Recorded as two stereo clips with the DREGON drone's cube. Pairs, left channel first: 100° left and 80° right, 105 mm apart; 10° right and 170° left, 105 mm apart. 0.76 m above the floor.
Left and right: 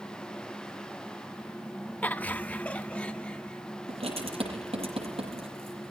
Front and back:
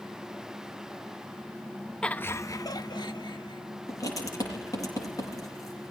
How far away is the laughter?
About 0.7 m.